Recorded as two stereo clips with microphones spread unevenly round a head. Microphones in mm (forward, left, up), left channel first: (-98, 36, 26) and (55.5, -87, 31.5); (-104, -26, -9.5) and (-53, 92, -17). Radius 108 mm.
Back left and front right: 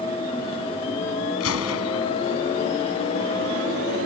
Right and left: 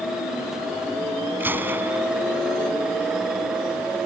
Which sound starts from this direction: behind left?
A gunshot, at 1.4 s.